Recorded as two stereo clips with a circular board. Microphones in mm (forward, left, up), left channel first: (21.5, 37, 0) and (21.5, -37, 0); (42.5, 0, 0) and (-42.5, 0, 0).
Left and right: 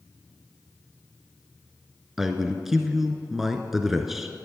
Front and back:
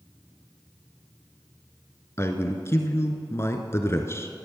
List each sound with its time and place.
2.2 s a man speaking: 5° right, 1.2 m